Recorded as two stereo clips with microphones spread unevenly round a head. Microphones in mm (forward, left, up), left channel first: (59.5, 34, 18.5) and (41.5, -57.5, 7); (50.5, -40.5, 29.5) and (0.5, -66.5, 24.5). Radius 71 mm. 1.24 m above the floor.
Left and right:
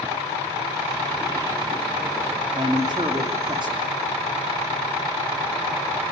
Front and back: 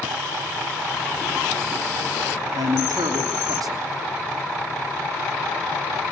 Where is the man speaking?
160° right, 3 m.